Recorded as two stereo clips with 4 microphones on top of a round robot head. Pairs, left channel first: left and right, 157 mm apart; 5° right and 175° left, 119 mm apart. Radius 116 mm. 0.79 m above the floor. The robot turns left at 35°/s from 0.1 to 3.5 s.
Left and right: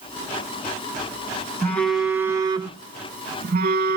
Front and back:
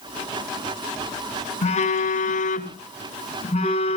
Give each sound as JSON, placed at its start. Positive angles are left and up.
{"t": 1.6, "sound": "a phone buzzing", "azimuth_deg": 15, "distance_m": 1.9}